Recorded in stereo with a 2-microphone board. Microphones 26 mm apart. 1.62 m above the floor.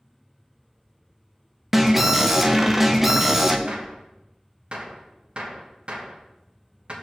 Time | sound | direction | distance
1.7 | an alarm | 10° right (ahead or behind) | 0.6 m
3.7 | a gunshot | 45° right (ahead or behind) | 1.2 m